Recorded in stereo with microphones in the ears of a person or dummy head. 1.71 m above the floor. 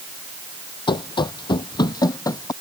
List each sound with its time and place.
0.9 s running footsteps: 25° left (ahead or behind); by 2.5 s 20° left (ahead or behind)